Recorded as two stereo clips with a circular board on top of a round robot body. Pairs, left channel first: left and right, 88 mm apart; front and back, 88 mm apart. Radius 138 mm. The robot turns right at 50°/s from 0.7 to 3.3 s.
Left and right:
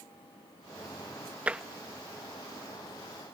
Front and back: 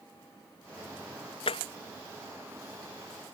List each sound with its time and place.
1.5 s tapping: 15° right; by 1.6 s 5° right